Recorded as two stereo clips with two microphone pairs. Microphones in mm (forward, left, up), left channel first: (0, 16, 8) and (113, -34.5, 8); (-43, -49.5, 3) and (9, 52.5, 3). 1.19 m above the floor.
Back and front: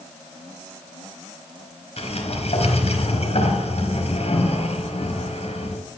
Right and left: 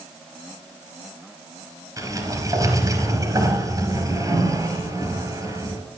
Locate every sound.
2.0 s a sliding door: 125° left, 3.5 m